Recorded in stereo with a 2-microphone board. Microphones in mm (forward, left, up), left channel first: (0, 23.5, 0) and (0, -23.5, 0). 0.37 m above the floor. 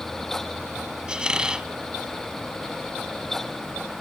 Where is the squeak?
20° right (ahead or behind), 1.2 m.